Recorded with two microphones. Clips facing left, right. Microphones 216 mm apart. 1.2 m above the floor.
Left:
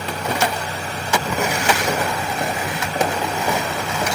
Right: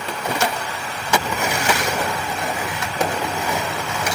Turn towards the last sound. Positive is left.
turn(degrees=55)  # may be behind; listen again after turning